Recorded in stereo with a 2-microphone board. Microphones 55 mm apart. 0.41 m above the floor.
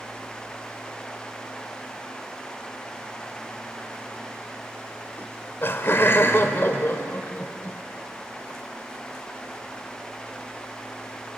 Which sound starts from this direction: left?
Laughter, at 5.2 s.